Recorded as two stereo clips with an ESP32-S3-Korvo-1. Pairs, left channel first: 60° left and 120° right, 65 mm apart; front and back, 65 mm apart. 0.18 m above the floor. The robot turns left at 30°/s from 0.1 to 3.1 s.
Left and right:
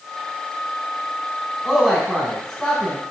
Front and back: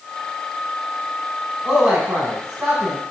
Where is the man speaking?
140° left, 1.1 m; by 3.0 s 100° left, 1.1 m.